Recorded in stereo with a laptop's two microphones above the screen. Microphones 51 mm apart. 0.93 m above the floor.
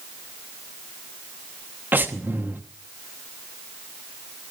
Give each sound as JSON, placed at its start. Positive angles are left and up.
{"t": 1.9, "sound": "breathing", "side_deg": -35, "distance_m": 1.0}